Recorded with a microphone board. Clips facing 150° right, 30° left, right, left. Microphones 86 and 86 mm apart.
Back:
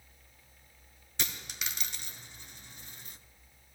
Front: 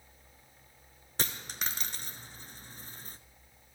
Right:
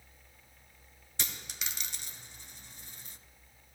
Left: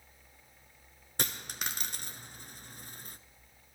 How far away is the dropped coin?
About 0.8 m.